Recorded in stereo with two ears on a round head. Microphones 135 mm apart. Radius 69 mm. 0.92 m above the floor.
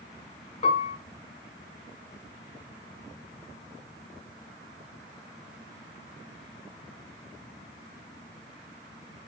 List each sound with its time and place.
0.6 s a piano: 45° left (ahead or behind), 0.7 m